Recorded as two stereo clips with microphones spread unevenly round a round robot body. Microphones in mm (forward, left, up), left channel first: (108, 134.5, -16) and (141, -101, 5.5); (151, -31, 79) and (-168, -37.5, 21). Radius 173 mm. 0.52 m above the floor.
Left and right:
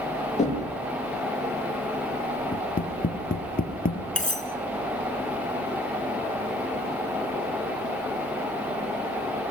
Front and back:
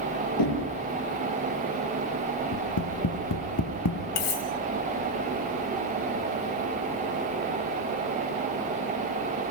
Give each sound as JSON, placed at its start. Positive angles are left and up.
{"t": 0.4, "sound": "knocking", "azimuth_deg": 35, "distance_m": 8.5}
{"t": 2.5, "sound": "tapping", "azimuth_deg": 45, "distance_m": 3.5}
{"t": 4.2, "sound": "cutlery clinking", "azimuth_deg": 40, "distance_m": 3.5}